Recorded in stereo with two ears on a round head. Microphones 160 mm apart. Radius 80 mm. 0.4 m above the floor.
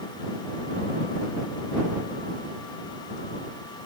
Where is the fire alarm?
No fire alarm in this recording.